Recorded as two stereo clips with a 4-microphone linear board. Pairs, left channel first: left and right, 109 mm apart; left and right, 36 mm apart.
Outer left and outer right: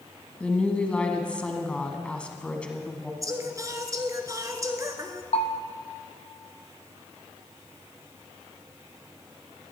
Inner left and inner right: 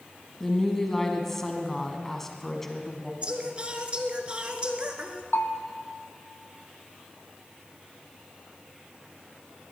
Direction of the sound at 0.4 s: 10° left (ahead or behind).